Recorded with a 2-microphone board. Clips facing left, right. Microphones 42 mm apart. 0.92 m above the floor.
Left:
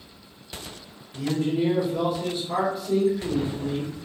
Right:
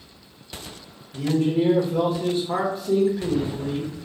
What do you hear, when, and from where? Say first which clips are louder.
1.1 s a man speaking: right 4 dB; 45° right (ahead or behind), 1.1 m